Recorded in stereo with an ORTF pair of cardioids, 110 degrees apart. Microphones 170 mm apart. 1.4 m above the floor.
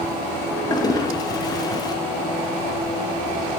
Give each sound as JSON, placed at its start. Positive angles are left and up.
{"t": 0.7, "sound": "a toilet flushing", "azimuth_deg": 20, "distance_m": 1.5}